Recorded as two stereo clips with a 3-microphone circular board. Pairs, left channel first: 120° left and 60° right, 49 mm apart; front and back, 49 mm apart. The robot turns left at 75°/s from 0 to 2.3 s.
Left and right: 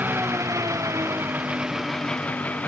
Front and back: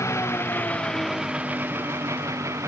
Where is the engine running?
5° right; by 2.7 s straight behind.